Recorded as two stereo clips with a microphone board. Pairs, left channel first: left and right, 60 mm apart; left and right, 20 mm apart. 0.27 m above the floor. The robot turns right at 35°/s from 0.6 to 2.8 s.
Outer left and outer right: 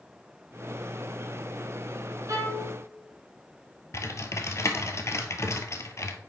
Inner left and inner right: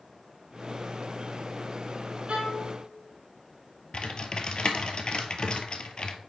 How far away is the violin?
About 4 m.